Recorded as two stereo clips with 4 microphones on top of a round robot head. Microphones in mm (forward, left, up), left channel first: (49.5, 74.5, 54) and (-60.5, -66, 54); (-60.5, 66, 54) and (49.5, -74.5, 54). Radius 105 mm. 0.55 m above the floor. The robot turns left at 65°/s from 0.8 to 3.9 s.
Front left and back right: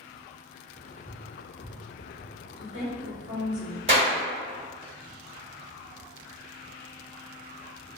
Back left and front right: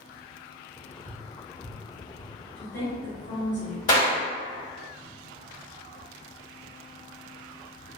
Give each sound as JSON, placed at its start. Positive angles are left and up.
{"t": 1.1, "sound": "tapping", "azimuth_deg": 145, "distance_m": 1.1}
{"t": 2.6, "sound": "a woman speaking", "azimuth_deg": -150, "distance_m": 1.5}
{"t": 3.9, "sound": "a clap", "azimuth_deg": 175, "distance_m": 1.9}